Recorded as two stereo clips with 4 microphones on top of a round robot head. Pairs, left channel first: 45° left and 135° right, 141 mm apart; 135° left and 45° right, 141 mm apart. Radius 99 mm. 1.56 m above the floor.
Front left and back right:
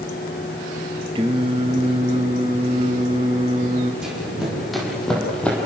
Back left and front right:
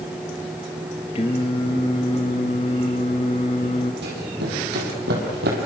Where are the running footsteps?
50° right, 5 m; by 5.7 s 35° right, 3.5 m.